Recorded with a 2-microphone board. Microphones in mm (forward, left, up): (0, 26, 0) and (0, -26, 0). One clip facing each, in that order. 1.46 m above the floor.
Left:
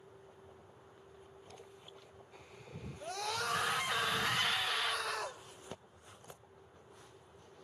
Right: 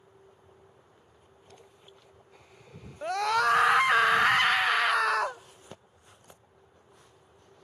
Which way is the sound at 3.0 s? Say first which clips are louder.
Right 13 dB; 75° right (ahead or behind).